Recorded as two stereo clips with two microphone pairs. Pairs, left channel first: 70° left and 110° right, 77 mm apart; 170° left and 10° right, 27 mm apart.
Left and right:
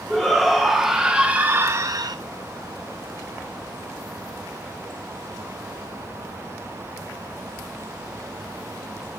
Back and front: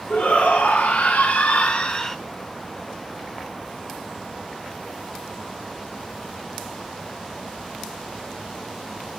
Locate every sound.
0.1 s a shout: 160° left, 1.6 m; by 2.2 s 120° right, 0.5 m